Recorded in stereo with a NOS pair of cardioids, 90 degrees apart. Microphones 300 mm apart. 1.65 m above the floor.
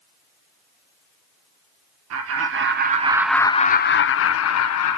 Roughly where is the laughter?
Ahead right.